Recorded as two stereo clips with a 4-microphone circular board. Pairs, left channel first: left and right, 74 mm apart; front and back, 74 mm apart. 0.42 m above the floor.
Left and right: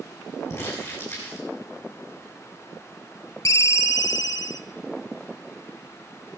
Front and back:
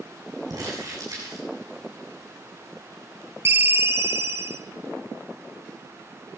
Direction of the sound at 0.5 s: 145° left.